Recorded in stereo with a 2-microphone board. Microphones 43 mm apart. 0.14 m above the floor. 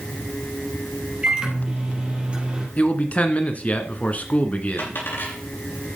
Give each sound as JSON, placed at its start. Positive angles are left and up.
{"t": 1.2, "sound": "a microwave", "side_deg": -25, "distance_m": 3.5}
{"t": 2.8, "sound": "a man speaking", "side_deg": 35, "distance_m": 1.6}
{"t": 4.8, "sound": "a dropped coin", "side_deg": 60, "distance_m": 6.0}